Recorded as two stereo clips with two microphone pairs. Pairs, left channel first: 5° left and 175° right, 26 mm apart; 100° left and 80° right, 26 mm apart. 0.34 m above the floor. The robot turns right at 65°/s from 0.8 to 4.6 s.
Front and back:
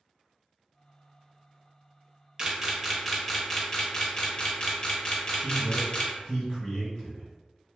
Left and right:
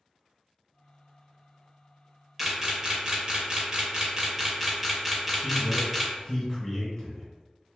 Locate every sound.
2.4 s a camera shutter: 145° right, 0.6 m; by 6.1 s 5° right, 0.6 m
5.4 s a man speaking: 35° left, 1.7 m